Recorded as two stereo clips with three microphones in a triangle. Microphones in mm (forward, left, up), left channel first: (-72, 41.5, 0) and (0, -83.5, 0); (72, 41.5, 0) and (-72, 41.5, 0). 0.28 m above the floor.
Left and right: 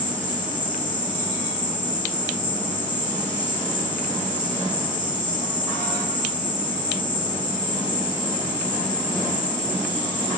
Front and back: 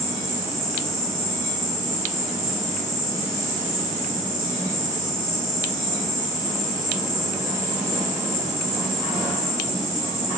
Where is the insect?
20° right, 3 m.